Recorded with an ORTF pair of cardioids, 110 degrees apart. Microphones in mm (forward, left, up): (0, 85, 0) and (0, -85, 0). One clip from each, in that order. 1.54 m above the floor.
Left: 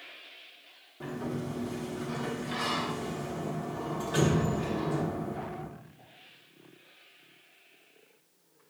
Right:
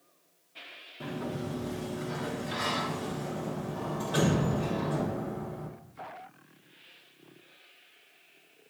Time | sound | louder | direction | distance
1.0 | a sliding door | even | 10° right | 1.5 m